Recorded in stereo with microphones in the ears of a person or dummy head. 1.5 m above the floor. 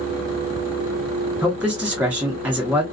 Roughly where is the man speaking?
Centre.